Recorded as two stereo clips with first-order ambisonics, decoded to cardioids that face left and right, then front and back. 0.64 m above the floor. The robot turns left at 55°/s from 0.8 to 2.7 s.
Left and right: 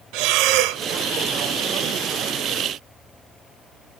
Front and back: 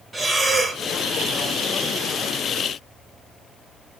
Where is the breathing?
105° right, 0.7 m.